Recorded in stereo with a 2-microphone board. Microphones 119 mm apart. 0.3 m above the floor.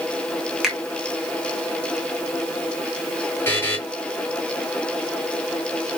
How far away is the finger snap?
About 1.8 m.